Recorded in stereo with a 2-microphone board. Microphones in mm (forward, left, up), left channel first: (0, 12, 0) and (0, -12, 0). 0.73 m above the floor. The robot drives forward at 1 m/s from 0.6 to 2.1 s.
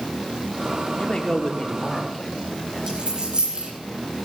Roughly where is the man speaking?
Left.